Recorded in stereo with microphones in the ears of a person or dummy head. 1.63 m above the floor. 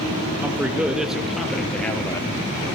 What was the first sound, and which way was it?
A man speaking, 10° right (ahead or behind).